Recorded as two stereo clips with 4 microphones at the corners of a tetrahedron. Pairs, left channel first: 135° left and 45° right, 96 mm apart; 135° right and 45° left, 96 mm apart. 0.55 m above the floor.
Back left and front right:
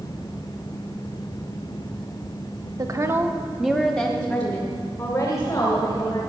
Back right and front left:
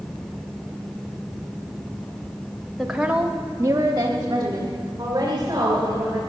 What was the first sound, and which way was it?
A woman speaking, 45° right.